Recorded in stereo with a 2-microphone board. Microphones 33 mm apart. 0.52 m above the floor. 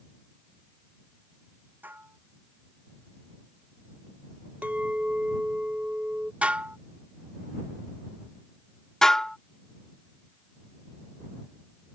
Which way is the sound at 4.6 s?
50° right (ahead or behind).